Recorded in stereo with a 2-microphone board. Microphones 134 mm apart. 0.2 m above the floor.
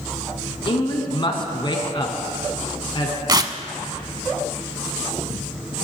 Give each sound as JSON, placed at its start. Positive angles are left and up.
{"t": 0.7, "sound": "a man speaking", "side_deg": 35, "distance_m": 1.6}
{"t": 3.3, "sound": "tearing paper", "side_deg": -30, "distance_m": 0.5}